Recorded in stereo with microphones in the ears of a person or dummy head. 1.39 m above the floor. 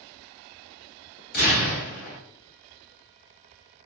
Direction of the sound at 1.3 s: 45° left (ahead or behind).